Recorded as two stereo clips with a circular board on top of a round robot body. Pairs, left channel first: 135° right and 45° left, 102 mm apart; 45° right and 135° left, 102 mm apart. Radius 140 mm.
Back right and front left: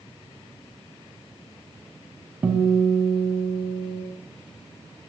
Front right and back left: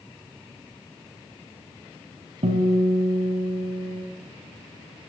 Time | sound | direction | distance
2.4 | a guitar | 115° left | 4.5 m